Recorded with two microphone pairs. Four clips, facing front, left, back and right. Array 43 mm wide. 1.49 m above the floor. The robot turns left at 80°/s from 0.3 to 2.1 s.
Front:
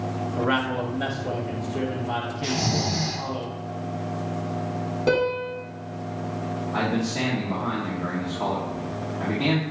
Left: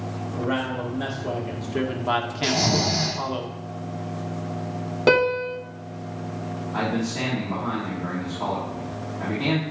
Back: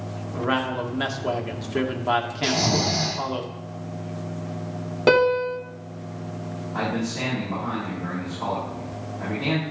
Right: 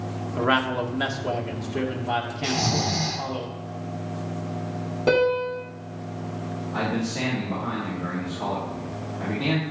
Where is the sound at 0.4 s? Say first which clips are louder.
Right 4 dB, even; 90° right, 1.6 m; by 3.4 s 135° left, 1.6 m.